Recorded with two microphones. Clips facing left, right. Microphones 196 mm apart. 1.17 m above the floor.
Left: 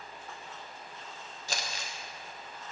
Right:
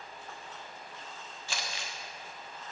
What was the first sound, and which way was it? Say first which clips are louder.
Crumpling: left 2 dB; 40° left (ahead or behind).